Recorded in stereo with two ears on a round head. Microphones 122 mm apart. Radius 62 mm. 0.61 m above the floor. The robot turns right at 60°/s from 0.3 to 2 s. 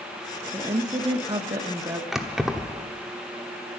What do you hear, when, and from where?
0.5 s a woman speaking: 135° right, 1.0 m; by 2.0 s 45° right, 1.0 m
2.1 s keys jangling: 5° right (ahead or behind), 1.0 m